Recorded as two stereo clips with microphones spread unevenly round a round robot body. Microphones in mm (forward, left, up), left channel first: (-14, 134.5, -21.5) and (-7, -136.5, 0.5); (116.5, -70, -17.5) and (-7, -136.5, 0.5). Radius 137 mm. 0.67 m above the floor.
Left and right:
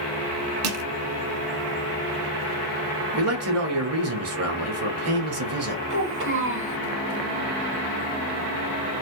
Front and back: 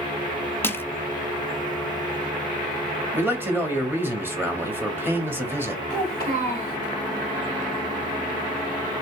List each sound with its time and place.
0.6 s crushing: 45° right, 0.5 m
3.1 s a man speaking: 75° right, 1.2 m
5.9 s a child speaking: 135° right, 2.5 m